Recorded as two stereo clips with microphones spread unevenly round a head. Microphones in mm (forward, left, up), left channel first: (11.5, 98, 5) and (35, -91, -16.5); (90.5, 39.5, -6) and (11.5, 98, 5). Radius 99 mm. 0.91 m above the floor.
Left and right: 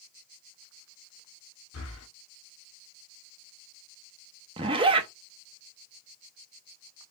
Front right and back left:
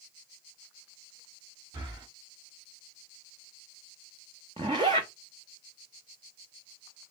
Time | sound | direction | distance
1.7 | breathing | 105° left | 1.9 m
4.6 | a zipper | 150° right | 0.6 m